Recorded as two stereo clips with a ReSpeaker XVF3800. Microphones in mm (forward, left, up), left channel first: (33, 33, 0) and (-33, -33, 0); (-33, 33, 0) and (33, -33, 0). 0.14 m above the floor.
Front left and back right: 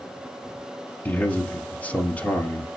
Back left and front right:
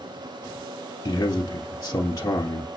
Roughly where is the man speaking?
Left.